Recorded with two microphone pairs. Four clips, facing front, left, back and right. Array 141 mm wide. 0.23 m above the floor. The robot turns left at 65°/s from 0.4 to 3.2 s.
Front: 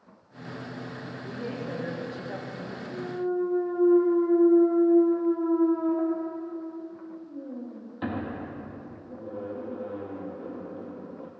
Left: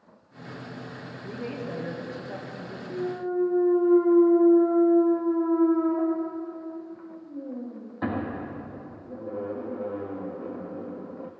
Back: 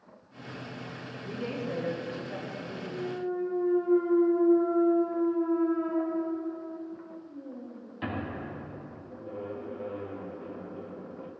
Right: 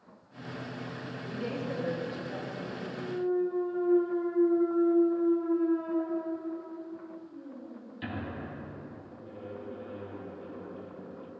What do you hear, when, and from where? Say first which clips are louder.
1.2 s a woman speaking: left 1 dB, back 1 dB; 80° left, 4 m; by 2.8 s 25° right, 4 m
2.9 s a clunk: left 2 dB, front 4 dB; 95° left, 1.5 m; by 11.3 s 75° left, 1.5 m